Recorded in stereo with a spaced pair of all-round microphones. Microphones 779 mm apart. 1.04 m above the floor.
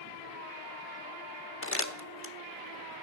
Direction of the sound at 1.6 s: 15° left (ahead or behind).